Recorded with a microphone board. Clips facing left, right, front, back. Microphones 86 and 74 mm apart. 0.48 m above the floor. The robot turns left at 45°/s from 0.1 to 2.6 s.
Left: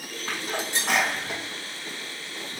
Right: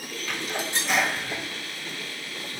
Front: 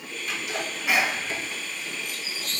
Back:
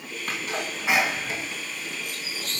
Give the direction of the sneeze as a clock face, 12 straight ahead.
7 o'clock.